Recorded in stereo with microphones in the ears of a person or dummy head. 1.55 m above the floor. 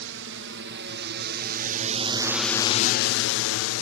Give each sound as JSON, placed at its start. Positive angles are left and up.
{"t": 0.0, "sound": "a drone", "side_deg": -70}